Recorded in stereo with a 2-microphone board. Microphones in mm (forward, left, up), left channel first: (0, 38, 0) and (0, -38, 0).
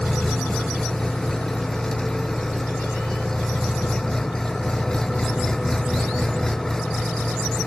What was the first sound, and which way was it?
An engine running, 5° left (ahead or behind).